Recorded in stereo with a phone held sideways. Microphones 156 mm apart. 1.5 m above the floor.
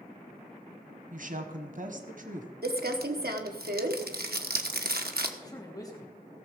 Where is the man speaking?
25° left (ahead or behind), 3 m.